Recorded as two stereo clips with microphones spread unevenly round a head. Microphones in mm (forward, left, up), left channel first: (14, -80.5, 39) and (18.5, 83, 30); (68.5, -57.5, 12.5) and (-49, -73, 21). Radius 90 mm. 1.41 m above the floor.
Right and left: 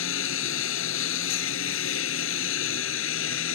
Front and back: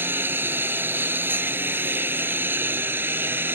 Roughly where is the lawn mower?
Right.